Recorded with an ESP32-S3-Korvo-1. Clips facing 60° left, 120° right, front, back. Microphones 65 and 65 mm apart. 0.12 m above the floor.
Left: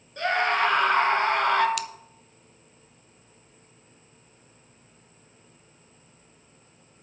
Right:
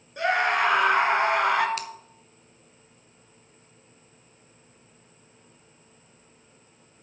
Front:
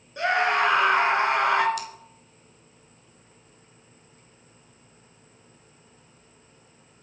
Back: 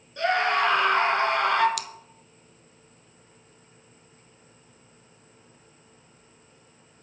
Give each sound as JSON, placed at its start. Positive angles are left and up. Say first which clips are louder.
{"t": 0.2, "sound": "a scream", "louder": "right 1 dB, front 1 dB", "azimuth_deg": -55, "distance_m": 1.6}
{"t": 1.8, "sound": "scissors", "louder": "left 3 dB, front 2 dB", "azimuth_deg": -175, "distance_m": 0.5}